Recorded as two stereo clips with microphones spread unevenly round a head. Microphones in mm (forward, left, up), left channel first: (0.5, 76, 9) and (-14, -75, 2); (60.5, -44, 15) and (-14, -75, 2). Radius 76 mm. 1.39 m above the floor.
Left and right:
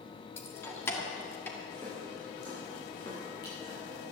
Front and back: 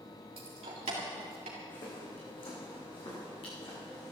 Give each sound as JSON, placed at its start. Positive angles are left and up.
{"t": 0.4, "sound": "keys jangling", "azimuth_deg": 155, "distance_m": 1.5}
{"t": 1.7, "sound": "footsteps", "azimuth_deg": 10, "distance_m": 6.5}